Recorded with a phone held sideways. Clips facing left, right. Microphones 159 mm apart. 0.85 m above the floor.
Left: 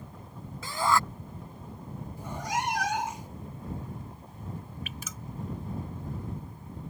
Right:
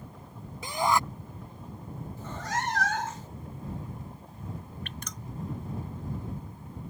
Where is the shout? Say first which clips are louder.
Right 1 dB; 20° right (ahead or behind).